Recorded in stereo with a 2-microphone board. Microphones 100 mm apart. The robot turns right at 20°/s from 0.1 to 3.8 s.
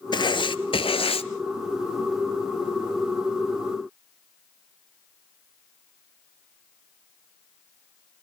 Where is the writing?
50° left (ahead or behind), 0.8 m; by 1.3 s 75° left (ahead or behind), 0.8 m.